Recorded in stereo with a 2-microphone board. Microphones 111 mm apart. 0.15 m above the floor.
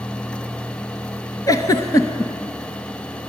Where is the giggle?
35° left (ahead or behind), 0.8 m.